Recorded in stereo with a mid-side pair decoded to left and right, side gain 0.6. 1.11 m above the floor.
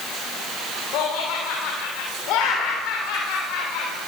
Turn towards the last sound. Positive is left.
turn(degrees=65)